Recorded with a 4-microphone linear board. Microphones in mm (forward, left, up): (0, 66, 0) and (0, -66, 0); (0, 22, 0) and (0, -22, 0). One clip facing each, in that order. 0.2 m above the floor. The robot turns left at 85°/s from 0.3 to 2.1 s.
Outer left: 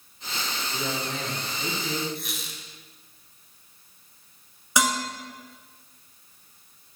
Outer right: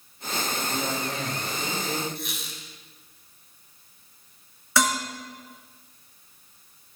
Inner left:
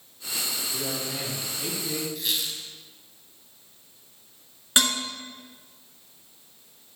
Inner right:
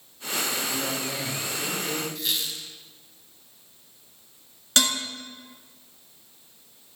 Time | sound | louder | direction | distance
0.7 | a man speaking | outer left 1 dB, inner right 2 dB | 125° right | 3 m
2.1 | a squeak | outer right 1 dB, even | centre (ahead or behind) | 1.1 m
4.8 | dishes clattering | outer right 1 dB, even | 15° left (ahead or behind) | 1.6 m